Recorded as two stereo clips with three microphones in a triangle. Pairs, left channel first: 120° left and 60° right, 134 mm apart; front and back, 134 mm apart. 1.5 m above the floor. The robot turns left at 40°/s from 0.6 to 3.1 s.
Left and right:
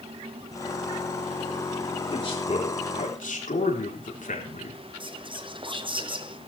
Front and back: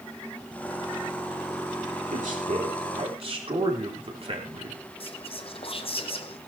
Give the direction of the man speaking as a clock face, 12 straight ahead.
6 o'clock.